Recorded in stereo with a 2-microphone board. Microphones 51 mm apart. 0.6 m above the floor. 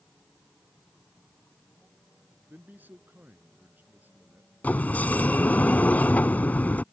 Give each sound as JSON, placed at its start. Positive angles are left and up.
{"t": 2.5, "sound": "a man speaking", "side_deg": -35}
{"t": 4.6, "sound": "a sliding door", "side_deg": 30}